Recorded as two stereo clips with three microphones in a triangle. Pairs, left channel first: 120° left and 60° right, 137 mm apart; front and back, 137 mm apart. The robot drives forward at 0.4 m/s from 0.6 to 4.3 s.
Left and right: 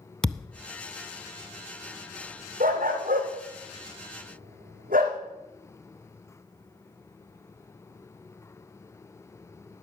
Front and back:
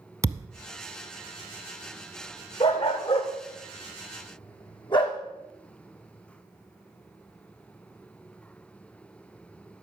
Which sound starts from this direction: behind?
A thud, at 0.2 s.